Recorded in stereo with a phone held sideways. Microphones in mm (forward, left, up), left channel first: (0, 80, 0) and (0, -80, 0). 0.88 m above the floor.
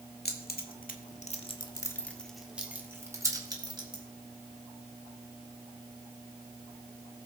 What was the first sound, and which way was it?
Keys jangling, 80° left.